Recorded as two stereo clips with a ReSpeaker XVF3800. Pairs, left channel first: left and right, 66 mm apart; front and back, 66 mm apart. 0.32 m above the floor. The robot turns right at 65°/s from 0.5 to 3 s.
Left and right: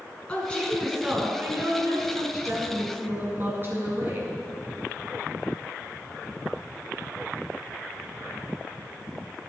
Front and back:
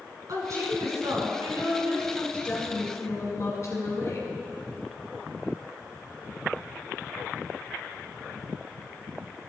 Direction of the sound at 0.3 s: 160° left.